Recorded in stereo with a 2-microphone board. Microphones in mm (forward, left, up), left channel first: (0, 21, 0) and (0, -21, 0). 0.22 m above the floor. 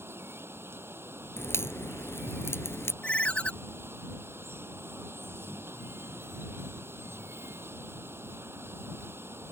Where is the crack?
70° left (ahead or behind).